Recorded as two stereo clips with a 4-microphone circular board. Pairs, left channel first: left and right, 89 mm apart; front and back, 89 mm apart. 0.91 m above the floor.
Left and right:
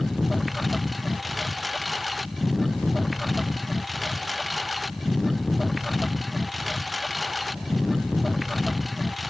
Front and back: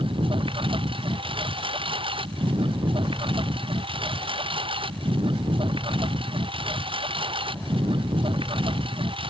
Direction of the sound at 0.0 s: Straight behind.